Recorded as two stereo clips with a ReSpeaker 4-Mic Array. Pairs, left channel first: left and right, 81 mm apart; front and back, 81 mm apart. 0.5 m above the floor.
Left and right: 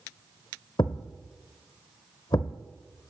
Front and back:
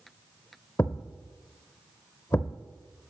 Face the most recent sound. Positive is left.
turn(degrees=55)